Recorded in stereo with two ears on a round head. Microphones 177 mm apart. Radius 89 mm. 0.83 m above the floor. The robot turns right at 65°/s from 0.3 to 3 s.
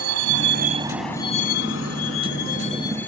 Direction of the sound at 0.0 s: 80° right.